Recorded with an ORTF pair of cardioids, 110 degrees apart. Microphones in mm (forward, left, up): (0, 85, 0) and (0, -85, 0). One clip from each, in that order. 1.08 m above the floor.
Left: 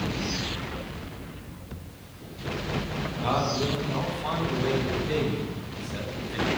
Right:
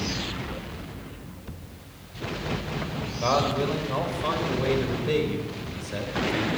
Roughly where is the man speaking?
Ahead right.